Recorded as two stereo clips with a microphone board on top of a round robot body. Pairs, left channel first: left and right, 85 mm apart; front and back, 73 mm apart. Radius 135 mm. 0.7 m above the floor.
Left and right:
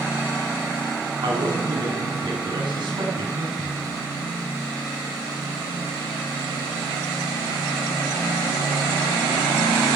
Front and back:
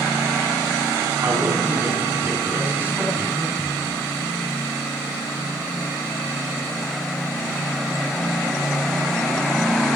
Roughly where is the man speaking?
Behind right.